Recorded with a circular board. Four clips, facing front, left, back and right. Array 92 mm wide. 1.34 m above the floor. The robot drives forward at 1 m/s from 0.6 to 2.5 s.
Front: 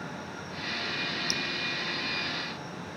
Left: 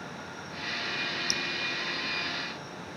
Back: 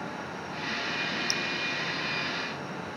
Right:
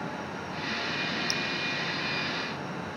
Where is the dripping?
65° left.